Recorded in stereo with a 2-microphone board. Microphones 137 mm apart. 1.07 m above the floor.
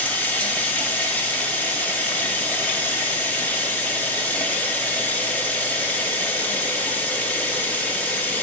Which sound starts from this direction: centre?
Running water, at 0.0 s.